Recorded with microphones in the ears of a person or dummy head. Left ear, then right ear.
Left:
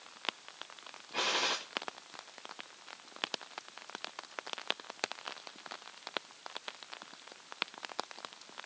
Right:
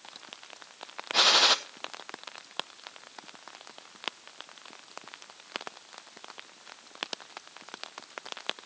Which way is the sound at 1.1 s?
40° right (ahead or behind).